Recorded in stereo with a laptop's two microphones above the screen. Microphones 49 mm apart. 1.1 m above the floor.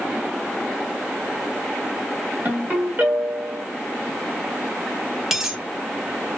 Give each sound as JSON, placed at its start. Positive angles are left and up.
{"t": 2.5, "sound": "a ringtone", "side_deg": -40, "distance_m": 1.3}
{"t": 5.3, "sound": "a dropped coin", "side_deg": -10, "distance_m": 0.7}